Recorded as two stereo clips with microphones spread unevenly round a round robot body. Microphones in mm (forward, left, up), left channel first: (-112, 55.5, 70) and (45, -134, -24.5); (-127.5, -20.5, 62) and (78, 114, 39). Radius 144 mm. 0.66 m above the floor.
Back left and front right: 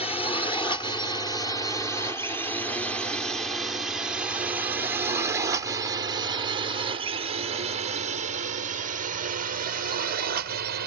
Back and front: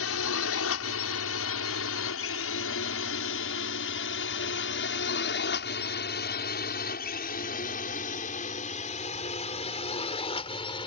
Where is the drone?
150° right; by 10.9 s 75° right.